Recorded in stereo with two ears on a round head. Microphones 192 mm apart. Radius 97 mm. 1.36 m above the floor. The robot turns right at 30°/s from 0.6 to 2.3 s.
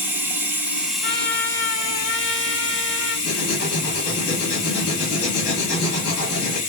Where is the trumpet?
60° left, 1.9 m; by 3.1 s 100° left, 1.9 m.